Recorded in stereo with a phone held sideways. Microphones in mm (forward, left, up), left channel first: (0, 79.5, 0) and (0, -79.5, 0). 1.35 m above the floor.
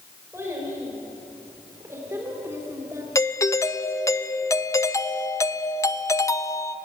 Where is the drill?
I don't hear a drill.